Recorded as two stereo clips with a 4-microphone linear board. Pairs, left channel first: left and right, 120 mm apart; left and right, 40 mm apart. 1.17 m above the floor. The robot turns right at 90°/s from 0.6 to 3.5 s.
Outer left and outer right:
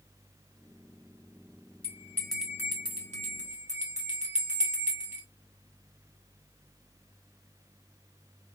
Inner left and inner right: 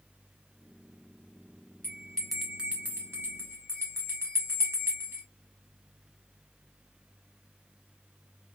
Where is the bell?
45° left (ahead or behind), 1.8 m; by 5.2 s 70° right (ahead or behind), 1.8 m.